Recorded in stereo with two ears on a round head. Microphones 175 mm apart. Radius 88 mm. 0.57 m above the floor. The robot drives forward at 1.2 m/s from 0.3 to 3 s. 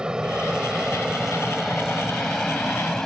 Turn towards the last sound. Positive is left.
turn(degrees=5)  # may be behind; listen again after turning